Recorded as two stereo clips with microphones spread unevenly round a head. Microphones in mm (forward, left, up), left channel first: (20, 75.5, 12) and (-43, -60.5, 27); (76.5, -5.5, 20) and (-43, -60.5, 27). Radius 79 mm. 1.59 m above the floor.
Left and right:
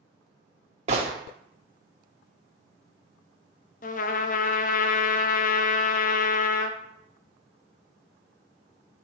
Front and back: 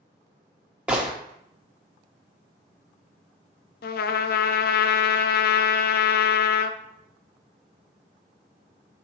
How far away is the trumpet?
About 0.5 m.